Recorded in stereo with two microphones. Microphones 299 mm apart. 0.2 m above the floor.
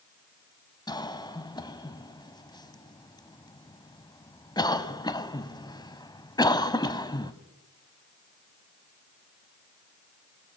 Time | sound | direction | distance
0.9 | a cough | 15° left (ahead or behind) | 1.1 m